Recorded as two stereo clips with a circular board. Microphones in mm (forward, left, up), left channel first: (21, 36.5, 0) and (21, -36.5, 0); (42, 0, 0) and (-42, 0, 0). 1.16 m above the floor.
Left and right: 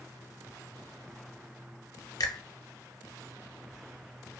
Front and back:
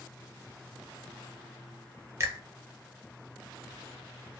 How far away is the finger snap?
About 0.6 m.